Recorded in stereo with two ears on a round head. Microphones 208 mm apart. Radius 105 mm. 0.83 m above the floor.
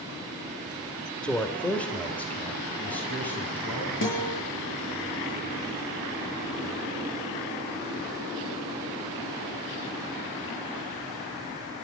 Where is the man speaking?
5° left (ahead or behind), 1.9 m.